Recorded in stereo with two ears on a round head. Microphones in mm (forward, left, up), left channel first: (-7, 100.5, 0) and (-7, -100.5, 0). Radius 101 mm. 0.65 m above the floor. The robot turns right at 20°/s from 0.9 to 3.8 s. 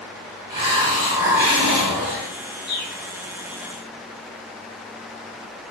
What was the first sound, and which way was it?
A hiss, 20° right (ahead or behind).